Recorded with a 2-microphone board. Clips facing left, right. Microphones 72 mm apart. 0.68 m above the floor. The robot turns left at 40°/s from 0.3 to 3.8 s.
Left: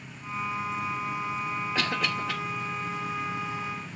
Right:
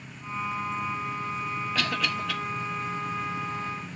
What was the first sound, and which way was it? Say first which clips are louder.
A cough: even; 25° left (ahead or behind).